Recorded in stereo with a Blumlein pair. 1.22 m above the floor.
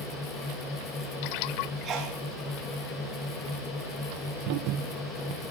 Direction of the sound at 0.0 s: 25° left.